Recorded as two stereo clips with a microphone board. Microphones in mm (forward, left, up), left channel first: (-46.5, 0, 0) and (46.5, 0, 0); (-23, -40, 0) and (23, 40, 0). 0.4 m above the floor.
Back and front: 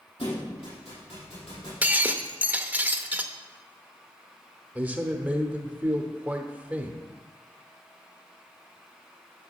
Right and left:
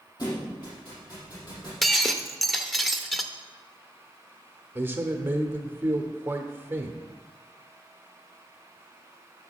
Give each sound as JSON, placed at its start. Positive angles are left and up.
{"t": 0.2, "sound": "a thud", "azimuth_deg": -165, "distance_m": 5.0}
{"t": 1.8, "sound": "breaking glass", "azimuth_deg": -30, "distance_m": 0.6}
{"t": 4.8, "sound": "a man speaking", "azimuth_deg": 45, "distance_m": 0.9}